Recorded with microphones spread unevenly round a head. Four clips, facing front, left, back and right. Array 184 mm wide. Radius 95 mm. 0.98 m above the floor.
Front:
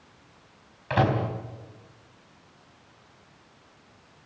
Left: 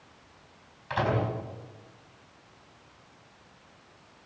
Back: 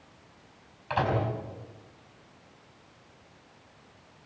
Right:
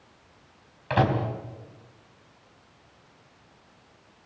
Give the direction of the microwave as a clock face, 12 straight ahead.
2 o'clock.